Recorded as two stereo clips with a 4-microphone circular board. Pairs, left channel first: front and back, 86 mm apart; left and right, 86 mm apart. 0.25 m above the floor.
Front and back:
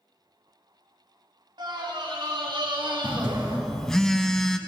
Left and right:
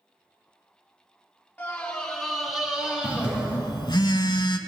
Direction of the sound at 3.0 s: 85° left.